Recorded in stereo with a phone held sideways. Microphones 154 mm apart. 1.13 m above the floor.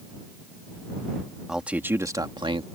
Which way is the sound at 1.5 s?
5° right (ahead or behind).